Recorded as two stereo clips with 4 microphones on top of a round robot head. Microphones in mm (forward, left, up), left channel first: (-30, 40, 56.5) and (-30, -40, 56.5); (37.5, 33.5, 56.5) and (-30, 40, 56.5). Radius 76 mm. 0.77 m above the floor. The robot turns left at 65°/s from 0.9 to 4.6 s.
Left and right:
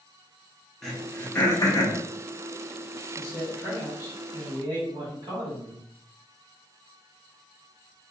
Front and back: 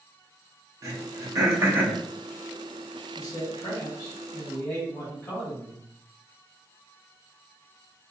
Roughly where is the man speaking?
Ahead.